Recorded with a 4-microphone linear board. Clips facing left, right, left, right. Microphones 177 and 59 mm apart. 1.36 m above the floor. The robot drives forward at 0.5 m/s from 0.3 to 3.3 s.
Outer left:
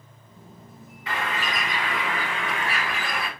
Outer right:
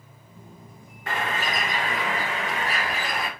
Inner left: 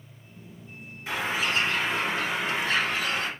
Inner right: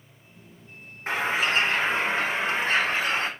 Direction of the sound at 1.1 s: 50° right (ahead or behind).